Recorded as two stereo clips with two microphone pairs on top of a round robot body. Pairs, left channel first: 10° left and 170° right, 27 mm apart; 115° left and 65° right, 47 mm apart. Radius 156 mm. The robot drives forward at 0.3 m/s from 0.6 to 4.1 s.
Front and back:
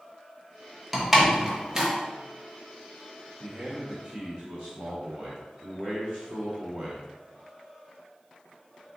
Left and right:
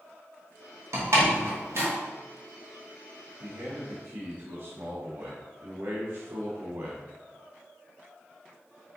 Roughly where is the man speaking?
Right.